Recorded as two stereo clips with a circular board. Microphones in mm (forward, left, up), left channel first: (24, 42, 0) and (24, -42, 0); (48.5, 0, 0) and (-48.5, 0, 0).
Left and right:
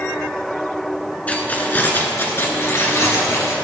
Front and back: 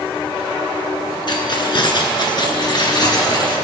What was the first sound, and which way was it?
Keys jangling, 20° left.